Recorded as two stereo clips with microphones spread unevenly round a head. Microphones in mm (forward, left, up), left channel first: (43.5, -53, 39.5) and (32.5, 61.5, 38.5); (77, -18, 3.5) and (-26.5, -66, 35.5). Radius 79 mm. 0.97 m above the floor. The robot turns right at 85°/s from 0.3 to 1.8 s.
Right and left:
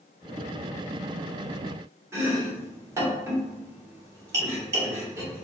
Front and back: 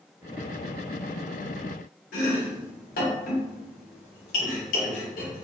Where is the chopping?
30° left, 1.0 m.